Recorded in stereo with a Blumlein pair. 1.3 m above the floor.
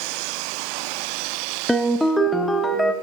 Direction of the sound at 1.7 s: 5° left.